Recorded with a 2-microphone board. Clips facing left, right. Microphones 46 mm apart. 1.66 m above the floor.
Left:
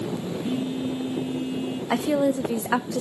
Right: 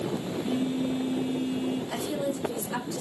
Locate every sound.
0.4 s a phone buzzing: 40° left (ahead or behind), 4.5 m
1.9 s a woman speaking: 75° left (ahead or behind), 0.8 m